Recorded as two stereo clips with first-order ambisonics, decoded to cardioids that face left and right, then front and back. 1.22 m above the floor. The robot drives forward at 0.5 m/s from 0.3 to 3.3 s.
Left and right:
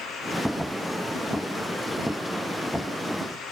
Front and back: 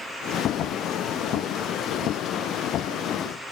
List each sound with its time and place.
Only background noise.